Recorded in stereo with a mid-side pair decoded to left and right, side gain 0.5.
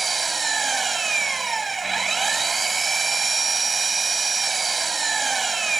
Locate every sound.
0.0 s an engine running: 25° right